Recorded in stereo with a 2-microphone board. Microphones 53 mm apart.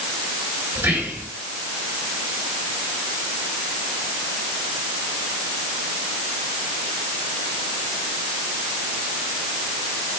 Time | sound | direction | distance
0.8 | whispering | 70° right (ahead or behind) | 2.5 m